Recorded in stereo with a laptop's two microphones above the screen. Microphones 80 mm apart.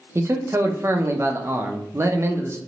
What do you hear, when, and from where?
0.1 s a man speaking: 35° right (ahead or behind), 0.6 m